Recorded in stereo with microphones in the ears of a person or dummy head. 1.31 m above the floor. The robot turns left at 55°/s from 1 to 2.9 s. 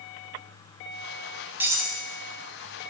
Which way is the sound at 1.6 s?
10° right (ahead or behind).